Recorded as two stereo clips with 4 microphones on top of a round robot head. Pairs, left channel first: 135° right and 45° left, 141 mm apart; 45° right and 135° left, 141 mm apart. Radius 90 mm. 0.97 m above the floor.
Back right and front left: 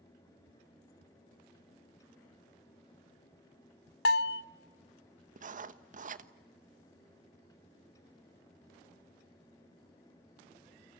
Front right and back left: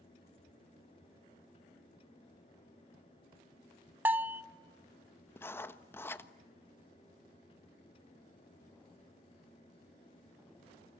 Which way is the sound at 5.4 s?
30° left.